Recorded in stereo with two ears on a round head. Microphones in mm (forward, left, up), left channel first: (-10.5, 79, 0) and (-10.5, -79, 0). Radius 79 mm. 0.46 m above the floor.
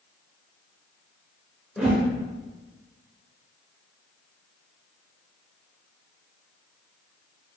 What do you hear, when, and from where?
1.8 s a whoosh: centre (ahead or behind), 0.8 m